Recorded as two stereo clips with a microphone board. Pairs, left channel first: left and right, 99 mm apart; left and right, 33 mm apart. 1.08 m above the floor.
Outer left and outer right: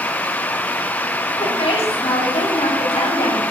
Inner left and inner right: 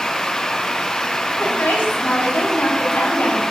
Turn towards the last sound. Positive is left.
turn(degrees=85)